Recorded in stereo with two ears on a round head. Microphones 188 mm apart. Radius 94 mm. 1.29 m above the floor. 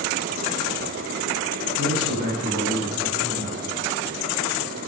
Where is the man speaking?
85° right, 9.5 m; by 3.6 s 75° right (ahead or behind), 8 m.